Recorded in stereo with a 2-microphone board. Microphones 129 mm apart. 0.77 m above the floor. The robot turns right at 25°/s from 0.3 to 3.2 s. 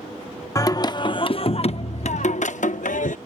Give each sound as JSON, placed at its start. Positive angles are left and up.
{"t": 0.6, "sound": "singing", "azimuth_deg": 25}